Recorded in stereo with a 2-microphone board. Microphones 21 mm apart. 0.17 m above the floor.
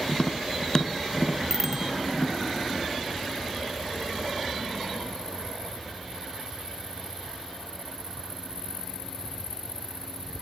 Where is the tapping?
35° left (ahead or behind).